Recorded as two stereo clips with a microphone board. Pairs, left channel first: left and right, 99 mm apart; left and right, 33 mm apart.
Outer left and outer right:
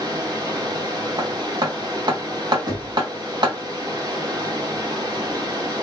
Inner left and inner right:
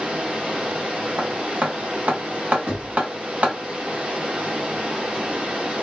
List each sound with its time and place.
0.0 s running water: 40° right (ahead or behind), 1.8 m
1.2 s hammering: 45° right (ahead or behind), 1.9 m
2.7 s knocking: 40° right (ahead or behind), 2.5 m